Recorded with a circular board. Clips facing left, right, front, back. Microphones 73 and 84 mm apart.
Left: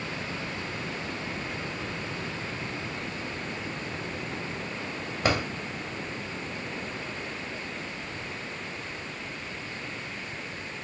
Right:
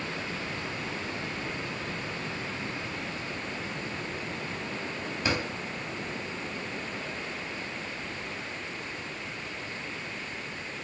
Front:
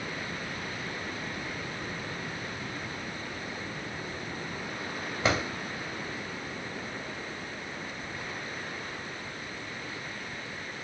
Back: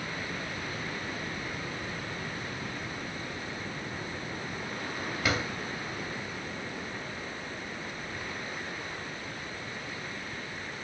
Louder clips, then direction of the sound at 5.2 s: Left 4 dB, front 3 dB; 60° left.